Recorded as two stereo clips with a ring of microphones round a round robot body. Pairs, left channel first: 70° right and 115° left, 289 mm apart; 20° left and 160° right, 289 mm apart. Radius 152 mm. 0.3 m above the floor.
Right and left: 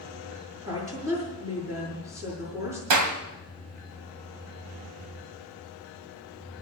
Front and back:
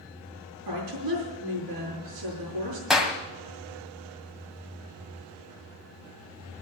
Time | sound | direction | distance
0.7 | a woman speaking | 170° right | 7 m
2.9 | a clap | 115° left | 1.9 m